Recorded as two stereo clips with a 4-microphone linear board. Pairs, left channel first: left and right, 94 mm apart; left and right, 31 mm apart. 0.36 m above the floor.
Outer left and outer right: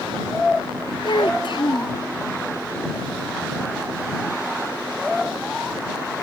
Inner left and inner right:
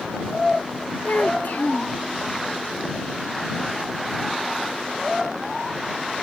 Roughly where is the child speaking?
Left.